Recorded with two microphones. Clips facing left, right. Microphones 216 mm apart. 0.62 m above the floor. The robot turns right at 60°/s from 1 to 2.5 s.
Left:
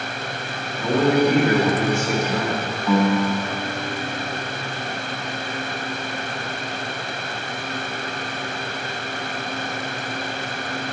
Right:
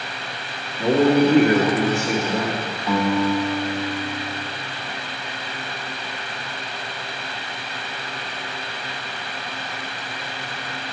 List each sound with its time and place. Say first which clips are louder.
0.8 s a man speaking: right 2 dB; 135° right, 1.3 m; by 2.7 s 45° right, 1.3 m
2.9 s a guitar: left 1 dB; 10° right (ahead or behind), 1.3 m